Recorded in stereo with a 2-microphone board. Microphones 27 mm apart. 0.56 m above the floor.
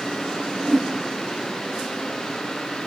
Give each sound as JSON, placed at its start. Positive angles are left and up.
{"t": 0.6, "sound": "a whoosh", "side_deg": 20, "distance_m": 1.2}